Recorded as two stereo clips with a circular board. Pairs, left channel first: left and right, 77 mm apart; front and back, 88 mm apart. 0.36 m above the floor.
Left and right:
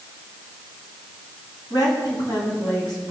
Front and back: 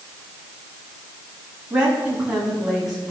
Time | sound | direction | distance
1.7 | a woman speaking | 105° left | 3 m